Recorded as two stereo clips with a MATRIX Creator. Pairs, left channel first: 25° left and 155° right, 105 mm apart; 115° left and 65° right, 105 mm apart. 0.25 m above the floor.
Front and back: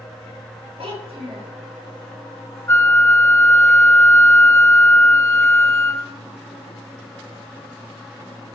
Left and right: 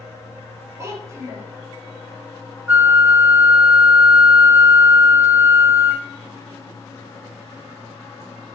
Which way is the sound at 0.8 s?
130° right.